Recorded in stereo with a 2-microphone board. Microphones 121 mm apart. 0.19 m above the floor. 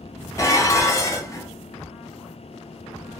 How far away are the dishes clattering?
About 0.8 m.